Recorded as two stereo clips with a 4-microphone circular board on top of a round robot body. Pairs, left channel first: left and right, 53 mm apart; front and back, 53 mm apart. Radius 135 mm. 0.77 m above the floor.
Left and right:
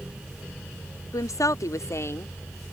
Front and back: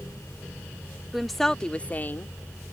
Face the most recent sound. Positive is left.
turn(degrees=45)